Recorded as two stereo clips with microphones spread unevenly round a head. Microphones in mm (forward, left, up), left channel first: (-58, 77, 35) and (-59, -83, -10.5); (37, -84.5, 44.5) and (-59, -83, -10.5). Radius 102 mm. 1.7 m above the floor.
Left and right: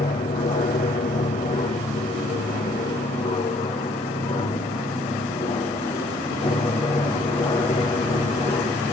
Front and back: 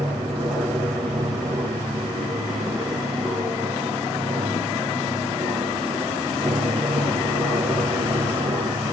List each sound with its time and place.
0.0 s an aircraft: 115° left; by 8.9 s 145° left